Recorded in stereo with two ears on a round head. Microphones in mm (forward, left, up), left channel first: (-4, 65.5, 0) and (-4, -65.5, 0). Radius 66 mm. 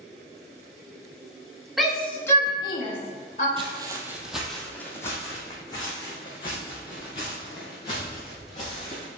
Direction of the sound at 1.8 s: Centre (ahead or behind).